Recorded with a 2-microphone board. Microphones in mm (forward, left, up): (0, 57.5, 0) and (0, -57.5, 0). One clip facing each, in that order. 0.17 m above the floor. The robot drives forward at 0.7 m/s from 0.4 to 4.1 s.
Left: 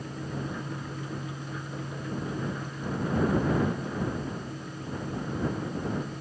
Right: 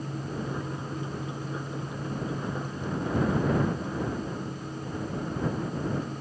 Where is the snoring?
I don't hear snoring.